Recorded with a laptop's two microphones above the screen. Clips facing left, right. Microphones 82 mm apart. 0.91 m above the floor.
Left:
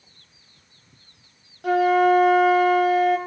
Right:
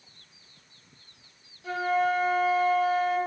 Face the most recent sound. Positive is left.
turn(degrees=60)  # may be behind; listen again after turning